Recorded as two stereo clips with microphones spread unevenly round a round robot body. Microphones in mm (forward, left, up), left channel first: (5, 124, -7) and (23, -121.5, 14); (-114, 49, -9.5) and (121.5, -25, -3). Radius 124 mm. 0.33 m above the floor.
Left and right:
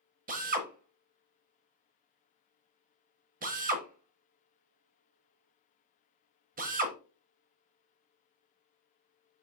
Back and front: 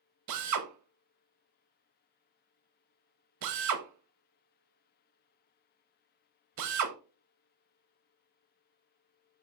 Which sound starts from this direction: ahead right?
A drill, at 0.3 s.